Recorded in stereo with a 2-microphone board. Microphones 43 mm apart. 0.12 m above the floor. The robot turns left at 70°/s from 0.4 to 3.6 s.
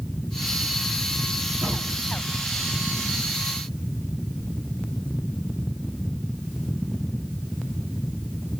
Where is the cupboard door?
65° right (ahead or behind), 8 m; by 2.0 s 40° right (ahead or behind), 8 m.